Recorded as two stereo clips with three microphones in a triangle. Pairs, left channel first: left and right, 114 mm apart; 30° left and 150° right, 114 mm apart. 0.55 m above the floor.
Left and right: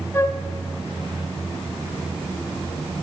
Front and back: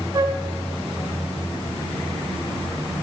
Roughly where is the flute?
Behind.